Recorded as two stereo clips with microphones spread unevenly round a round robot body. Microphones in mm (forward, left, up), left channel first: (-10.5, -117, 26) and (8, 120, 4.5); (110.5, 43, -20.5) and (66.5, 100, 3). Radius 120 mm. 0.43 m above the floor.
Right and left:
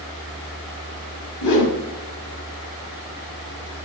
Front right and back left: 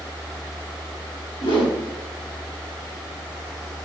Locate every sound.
1.4 s a whoosh: 85° right, 4.5 m